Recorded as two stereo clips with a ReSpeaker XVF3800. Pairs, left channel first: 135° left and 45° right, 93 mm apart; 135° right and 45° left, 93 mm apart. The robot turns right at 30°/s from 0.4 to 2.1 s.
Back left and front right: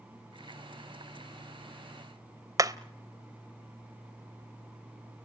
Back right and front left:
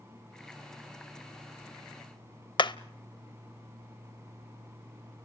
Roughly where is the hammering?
Right.